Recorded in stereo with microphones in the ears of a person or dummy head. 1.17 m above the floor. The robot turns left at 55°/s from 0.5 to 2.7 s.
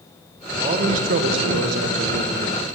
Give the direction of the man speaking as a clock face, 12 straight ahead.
1 o'clock.